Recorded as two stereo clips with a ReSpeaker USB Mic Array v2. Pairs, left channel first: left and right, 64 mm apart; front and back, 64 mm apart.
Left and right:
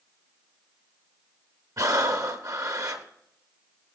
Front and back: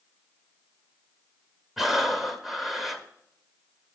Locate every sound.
1.8 s breathing: 95° right, 0.8 m